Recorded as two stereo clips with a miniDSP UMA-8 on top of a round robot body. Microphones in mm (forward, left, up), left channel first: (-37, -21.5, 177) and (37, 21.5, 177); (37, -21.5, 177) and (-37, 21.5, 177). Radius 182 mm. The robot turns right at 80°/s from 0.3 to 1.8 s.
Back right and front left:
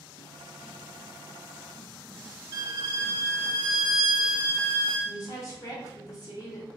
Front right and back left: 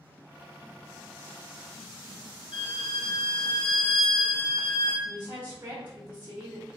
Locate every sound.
2.5 s a violin: 15° right, 0.6 m
5.0 s a woman speaking: 160° right, 1.1 m